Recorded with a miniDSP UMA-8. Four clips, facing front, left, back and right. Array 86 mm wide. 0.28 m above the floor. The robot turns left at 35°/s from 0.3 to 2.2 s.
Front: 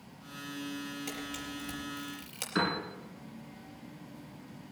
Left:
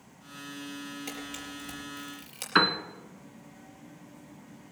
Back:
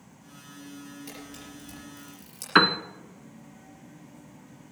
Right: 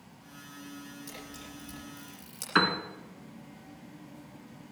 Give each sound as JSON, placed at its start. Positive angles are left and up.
{"t": 1.1, "sound": "a camera shutter", "azimuth_deg": 70, "distance_m": 5.0}
{"t": 2.5, "sound": "a piano", "azimuth_deg": 170, "distance_m": 0.8}